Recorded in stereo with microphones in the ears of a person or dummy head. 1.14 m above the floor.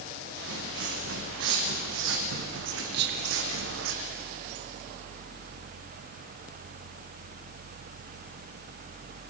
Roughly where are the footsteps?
Right.